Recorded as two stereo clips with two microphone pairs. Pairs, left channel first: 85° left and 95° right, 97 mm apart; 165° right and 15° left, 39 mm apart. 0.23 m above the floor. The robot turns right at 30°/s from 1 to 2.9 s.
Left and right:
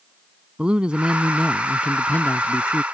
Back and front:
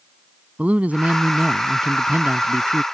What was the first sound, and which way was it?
A man speaking, 20° right.